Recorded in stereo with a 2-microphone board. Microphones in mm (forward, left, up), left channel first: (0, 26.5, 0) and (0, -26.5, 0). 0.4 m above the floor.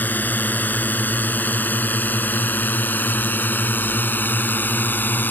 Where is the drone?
35° left (ahead or behind); by 5.3 s 40° left (ahead or behind).